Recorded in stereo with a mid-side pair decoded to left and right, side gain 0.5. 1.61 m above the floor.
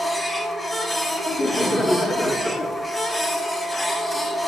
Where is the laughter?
25° left, 3.5 m.